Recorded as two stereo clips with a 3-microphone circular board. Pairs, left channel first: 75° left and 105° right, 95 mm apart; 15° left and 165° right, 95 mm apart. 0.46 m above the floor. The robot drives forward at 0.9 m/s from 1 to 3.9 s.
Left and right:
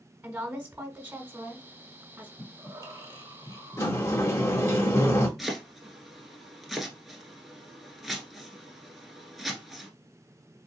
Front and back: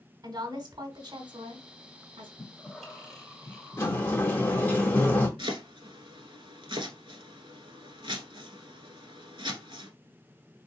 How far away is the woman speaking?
About 1.4 m.